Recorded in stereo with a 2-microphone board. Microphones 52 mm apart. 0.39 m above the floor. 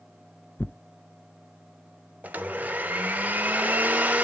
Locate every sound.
0.6 s tearing paper: 35° left (ahead or behind), 0.7 m
2.2 s a blender: 30° right (ahead or behind), 1.3 m